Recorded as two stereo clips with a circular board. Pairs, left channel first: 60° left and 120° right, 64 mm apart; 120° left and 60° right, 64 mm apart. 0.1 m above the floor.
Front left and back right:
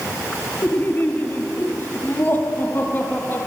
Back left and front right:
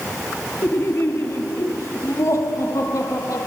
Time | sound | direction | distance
0.6 | laughter | 95° left | 1.8 m